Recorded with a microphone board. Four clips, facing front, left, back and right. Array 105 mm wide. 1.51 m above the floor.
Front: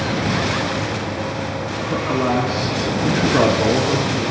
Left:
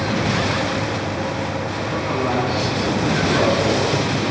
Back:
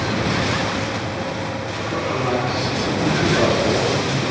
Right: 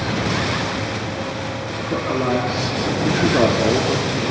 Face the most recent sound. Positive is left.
turn(degrees=0)